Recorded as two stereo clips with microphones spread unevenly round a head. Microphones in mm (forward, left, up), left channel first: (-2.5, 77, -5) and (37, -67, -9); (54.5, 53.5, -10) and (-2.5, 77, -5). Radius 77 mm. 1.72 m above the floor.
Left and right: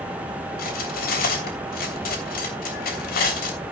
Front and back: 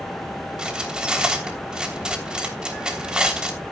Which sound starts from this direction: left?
Cutlery clinking, at 0.6 s.